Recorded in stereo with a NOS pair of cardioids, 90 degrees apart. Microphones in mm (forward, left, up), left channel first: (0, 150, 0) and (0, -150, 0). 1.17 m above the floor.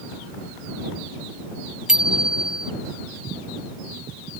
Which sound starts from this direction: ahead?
A bicycle bell, at 1.9 s.